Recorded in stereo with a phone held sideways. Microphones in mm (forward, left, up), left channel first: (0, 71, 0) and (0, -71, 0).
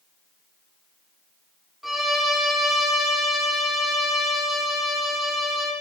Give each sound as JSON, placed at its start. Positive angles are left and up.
{"t": 1.8, "sound": "a violin", "side_deg": 0, "distance_m": 3.5}